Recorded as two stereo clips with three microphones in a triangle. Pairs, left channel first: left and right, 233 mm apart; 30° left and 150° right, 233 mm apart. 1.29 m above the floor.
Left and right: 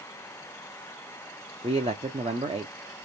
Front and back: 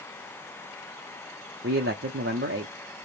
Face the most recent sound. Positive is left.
turn(degrees=-155)